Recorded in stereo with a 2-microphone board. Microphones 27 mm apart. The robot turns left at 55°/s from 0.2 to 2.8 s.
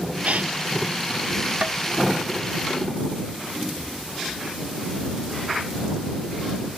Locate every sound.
0.2 s a gasp: 60° right (ahead or behind); by 0.5 s 65° right (ahead or behind)
1.6 s tapping: 50° right (ahead or behind); by 1.8 s 60° right (ahead or behind)